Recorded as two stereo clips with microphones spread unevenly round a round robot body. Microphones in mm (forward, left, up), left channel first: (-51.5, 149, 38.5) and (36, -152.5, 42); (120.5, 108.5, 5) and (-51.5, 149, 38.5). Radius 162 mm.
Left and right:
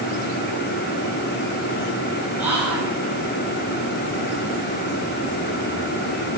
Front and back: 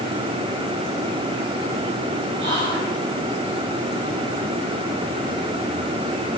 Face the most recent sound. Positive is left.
turn(degrees=-160)